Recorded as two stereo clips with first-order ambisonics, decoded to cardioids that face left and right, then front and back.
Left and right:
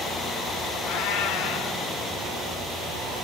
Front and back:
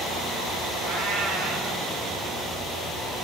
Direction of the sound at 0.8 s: 115° left.